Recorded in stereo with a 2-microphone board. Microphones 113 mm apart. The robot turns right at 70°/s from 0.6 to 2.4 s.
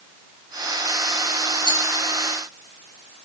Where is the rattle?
40° right (ahead or behind), 3.5 m; by 1.8 s 55° right (ahead or behind), 3.5 m.